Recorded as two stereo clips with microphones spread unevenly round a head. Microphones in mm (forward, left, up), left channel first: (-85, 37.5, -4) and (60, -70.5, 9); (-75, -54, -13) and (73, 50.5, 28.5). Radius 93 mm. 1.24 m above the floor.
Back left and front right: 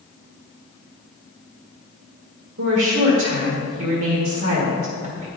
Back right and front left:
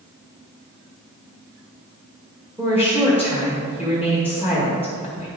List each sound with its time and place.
2.6 s a woman speaking: 45° right, 1.8 m